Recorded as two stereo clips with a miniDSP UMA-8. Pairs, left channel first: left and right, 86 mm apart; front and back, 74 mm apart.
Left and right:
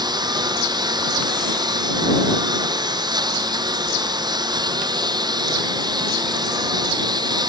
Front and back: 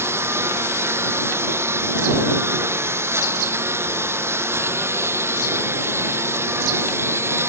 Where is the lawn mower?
125° right.